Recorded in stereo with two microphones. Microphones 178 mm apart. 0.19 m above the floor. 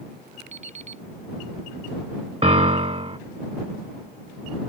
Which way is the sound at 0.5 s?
40° right (ahead or behind).